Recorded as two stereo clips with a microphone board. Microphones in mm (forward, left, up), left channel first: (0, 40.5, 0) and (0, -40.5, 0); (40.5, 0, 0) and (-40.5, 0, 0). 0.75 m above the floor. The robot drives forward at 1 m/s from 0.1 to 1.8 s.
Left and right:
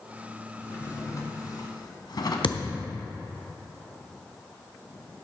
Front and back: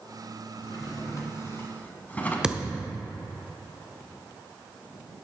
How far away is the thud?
About 0.8 m.